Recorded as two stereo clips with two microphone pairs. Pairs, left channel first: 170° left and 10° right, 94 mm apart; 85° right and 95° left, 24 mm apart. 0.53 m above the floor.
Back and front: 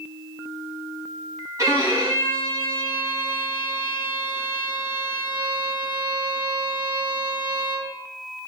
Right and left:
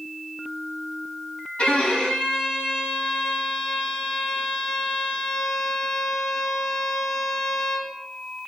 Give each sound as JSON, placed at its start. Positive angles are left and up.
{"t": 1.6, "sound": "a violin", "azimuth_deg": -65, "distance_m": 1.2}